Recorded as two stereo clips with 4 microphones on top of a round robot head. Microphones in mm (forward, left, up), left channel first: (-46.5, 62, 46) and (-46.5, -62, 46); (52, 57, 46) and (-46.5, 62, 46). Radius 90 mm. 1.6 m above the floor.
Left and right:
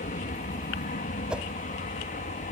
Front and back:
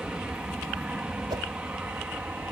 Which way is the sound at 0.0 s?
95° left.